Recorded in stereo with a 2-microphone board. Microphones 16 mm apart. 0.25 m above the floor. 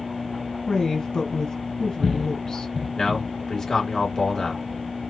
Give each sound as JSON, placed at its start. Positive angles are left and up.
{"t": 0.7, "sound": "a woman speaking", "side_deg": 60, "distance_m": 1.9}
{"t": 3.0, "sound": "a man speaking", "side_deg": 40, "distance_m": 3.0}